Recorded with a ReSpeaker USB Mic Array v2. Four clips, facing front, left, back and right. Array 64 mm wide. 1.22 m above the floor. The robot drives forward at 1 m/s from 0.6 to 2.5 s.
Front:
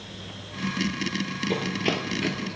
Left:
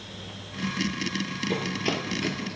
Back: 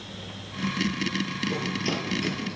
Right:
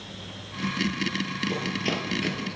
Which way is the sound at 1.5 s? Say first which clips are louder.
Left 3 dB, front 2 dB; 15° left.